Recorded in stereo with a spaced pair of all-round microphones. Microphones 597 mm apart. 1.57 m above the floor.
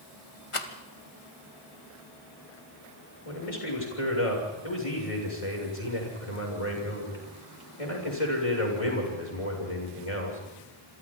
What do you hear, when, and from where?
0.5 s a rattle: 60° left (ahead or behind), 1.7 m
3.2 s a man speaking: 70° left (ahead or behind), 7 m